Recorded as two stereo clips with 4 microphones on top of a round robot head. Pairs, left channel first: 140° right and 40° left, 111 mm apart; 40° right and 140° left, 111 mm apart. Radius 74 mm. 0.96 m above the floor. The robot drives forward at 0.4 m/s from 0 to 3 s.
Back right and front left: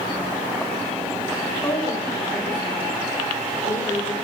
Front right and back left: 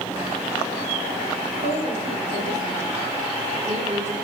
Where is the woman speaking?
145° left, 3 m; by 4.1 s 150° left, 3.5 m.